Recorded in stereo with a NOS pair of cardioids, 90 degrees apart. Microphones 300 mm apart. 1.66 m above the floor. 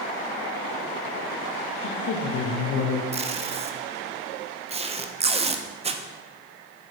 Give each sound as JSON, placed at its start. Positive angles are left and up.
{"t": 1.8, "sound": "a woman speaking", "azimuth_deg": 65, "distance_m": 1.0}
{"t": 3.1, "sound": "tape being pulled", "azimuth_deg": -20, "distance_m": 0.7}